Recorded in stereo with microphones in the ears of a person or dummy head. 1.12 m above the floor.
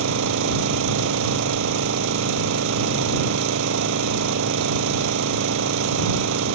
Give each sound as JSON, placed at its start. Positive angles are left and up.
{"t": 0.0, "sound": "an engine running", "side_deg": -70}